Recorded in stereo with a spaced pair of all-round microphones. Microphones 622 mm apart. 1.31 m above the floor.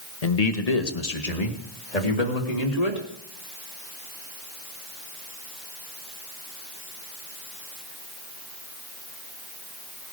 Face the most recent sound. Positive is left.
turn(degrees=80)